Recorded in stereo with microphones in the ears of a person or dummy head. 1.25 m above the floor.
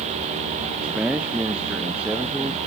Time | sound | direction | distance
0.8 | a man speaking | 5° right (ahead or behind) | 0.7 m